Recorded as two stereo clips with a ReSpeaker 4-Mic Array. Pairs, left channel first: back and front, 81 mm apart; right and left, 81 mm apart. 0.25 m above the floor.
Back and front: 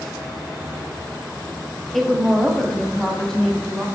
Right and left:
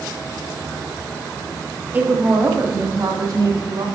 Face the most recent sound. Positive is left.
turn(degrees=100)